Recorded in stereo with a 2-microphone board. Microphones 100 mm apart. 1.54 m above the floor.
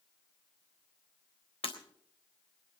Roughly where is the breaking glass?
Left.